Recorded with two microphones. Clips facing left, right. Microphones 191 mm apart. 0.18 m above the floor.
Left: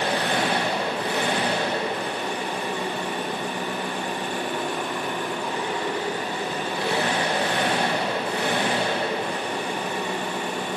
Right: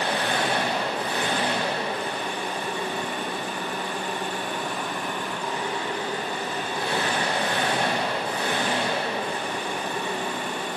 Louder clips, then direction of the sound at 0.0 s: Left 2 dB; 70° left (ahead or behind).